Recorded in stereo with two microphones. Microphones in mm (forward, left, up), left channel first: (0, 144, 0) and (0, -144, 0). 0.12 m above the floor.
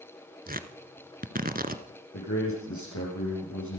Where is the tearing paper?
30° right (ahead or behind), 1.1 m.